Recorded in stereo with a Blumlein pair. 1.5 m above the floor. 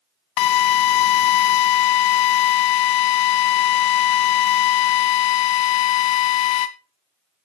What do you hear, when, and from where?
0.4 s a drill: 40° left, 1.0 m